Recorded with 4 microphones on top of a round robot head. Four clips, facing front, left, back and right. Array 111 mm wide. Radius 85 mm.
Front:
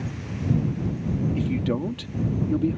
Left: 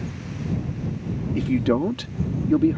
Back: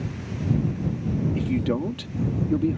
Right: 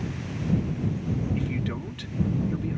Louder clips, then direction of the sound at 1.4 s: Left 10 dB, back 1 dB; 90° left.